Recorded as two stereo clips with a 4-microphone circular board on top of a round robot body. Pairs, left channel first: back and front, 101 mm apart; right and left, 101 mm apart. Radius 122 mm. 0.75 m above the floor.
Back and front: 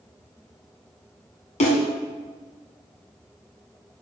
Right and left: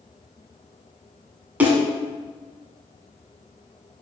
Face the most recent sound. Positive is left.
turn(degrees=165)